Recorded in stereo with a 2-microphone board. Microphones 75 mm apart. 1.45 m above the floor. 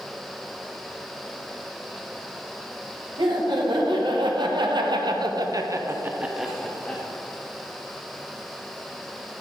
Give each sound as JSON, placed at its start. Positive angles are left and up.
{"t": 3.2, "sound": "laughter", "side_deg": -80, "distance_m": 1.7}